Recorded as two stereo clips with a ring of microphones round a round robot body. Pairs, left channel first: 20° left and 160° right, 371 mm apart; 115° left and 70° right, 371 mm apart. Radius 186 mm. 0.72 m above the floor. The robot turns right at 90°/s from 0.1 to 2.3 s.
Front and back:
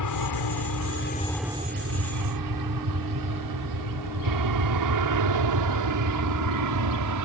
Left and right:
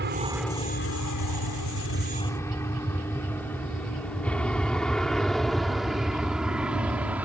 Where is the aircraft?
10° right; by 7.2 s 150° right.